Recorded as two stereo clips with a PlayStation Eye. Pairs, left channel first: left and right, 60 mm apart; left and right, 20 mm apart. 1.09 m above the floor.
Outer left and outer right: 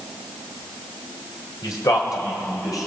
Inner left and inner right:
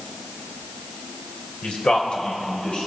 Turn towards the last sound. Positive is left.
turn(degrees=80)